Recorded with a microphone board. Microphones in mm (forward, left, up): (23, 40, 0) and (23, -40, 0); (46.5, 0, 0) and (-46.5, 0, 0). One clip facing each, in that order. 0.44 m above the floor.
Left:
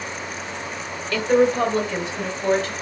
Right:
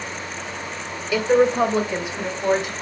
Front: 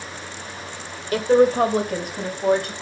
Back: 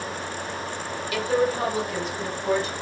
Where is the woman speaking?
15° right, 1.5 m; by 2.7 s 10° right, 3.5 m.